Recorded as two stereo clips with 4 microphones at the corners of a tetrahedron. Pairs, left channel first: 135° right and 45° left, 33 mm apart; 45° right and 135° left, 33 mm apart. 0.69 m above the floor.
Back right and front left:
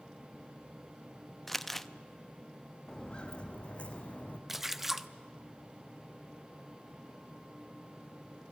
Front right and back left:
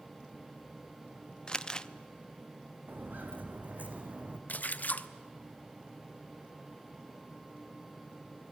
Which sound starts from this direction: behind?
Footsteps, at 2.9 s.